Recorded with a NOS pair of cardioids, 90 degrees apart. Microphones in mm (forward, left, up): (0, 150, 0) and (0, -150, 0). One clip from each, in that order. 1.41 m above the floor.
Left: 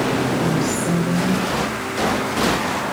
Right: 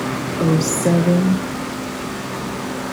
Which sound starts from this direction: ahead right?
A woman speaking, at 0.4 s.